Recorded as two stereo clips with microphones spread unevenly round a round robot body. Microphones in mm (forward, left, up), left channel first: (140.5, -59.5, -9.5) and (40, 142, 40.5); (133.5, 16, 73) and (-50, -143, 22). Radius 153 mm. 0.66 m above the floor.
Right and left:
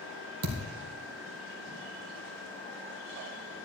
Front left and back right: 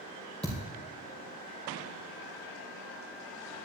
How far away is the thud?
About 2.5 m.